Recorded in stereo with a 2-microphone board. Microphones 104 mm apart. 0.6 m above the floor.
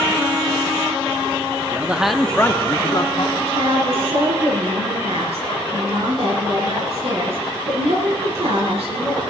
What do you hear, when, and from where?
1.7 s a man speaking: 20° right (ahead or behind), 0.9 m; by 3.3 s 45° left (ahead or behind), 1.3 m
3.4 s a woman speaking: 75° right (ahead or behind), 7.5 m